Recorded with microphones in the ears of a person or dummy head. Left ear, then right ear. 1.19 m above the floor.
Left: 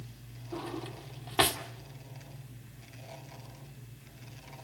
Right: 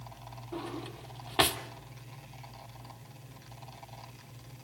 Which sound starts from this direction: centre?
A drawer, at 0.5 s.